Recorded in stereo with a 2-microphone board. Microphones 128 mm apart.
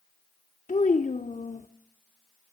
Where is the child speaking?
70° left (ahead or behind), 0.6 m.